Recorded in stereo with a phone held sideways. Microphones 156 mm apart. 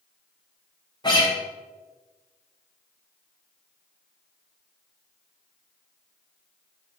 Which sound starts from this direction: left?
A guitar, at 1.0 s.